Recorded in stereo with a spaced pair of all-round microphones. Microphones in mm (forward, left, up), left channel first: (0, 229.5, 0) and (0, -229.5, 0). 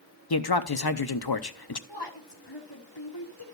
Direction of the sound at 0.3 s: 60° left (ahead or behind).